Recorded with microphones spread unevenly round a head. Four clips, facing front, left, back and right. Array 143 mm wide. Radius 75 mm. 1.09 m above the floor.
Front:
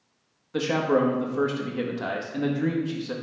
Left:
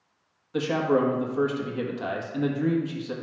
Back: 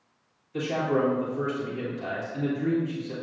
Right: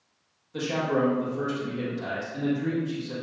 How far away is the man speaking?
About 1.5 m.